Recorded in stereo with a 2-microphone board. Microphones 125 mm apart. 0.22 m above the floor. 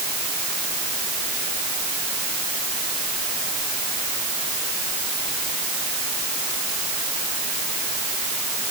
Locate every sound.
Only background noise.